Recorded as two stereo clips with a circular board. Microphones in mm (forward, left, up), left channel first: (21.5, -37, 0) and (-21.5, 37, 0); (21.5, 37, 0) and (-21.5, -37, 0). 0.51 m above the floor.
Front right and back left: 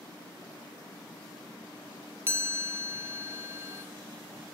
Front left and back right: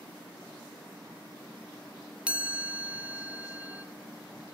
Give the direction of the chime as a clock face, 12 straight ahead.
6 o'clock.